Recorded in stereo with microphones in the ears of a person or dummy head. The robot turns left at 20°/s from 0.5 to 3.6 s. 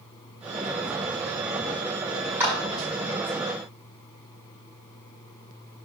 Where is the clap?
20° right (ahead or behind), 6 m; by 2.5 s 15° right (ahead or behind), 6 m.